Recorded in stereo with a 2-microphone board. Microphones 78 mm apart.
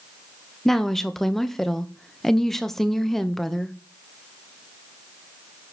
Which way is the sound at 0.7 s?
5° left (ahead or behind).